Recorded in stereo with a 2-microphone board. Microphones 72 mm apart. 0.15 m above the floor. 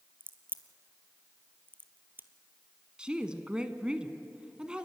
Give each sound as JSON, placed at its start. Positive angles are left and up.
{"t": 0.2, "sound": "a crack", "side_deg": -30, "distance_m": 1.0}
{"t": 3.0, "sound": "a woman speaking", "side_deg": -15, "distance_m": 1.1}